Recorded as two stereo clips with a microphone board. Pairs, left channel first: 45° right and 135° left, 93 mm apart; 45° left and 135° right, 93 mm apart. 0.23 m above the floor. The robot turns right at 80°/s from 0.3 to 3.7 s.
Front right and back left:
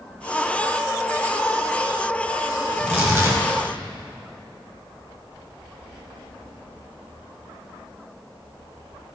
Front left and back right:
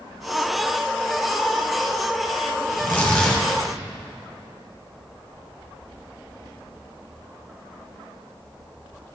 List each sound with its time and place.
2.7 s tearing paper: 80° left, 1.0 m; by 3.4 s 135° left, 1.0 m